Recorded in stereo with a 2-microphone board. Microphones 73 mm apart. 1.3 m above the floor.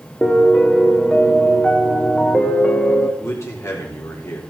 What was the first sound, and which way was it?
A piano, 15° left (ahead or behind).